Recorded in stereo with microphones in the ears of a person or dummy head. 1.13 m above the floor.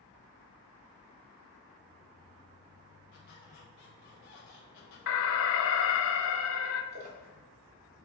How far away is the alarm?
About 0.7 m.